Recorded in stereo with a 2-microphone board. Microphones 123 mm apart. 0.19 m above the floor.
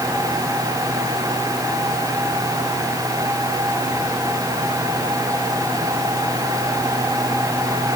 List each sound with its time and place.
Only background noise.